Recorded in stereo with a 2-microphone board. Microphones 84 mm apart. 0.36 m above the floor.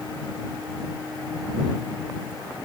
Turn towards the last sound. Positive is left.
No sound to turn to.